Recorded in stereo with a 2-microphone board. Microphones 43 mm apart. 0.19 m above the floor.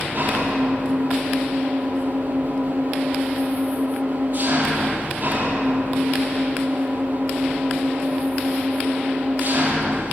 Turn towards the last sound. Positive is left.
turn(degrees=-35)  # may be behind; listen again after turning